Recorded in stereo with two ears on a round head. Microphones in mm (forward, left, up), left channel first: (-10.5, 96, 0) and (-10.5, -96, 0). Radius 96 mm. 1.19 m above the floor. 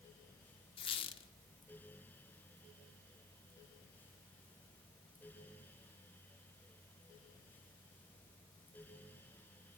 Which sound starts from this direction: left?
A squeak, at 0.8 s.